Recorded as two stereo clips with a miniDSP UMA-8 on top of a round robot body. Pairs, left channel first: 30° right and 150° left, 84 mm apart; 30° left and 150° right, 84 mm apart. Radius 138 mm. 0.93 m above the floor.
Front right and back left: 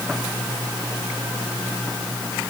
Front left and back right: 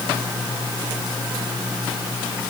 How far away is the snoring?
I don't hear snoring.